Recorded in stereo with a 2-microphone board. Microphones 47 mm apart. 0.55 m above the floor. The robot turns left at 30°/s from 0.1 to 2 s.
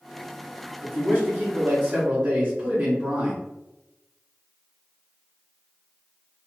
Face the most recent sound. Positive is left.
turn(degrees=-115)